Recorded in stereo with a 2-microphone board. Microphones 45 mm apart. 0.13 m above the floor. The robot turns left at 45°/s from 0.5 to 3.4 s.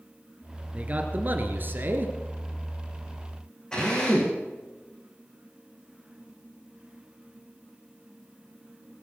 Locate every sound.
0.7 s a man speaking: 40° right, 2.5 m; by 2.1 s 105° right, 2.5 m
3.7 s a drill: 15° left (ahead or behind), 6.5 m